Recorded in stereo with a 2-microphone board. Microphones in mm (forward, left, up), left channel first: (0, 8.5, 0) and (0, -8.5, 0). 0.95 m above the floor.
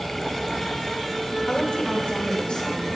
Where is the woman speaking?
75° left (ahead or behind), 3.5 m.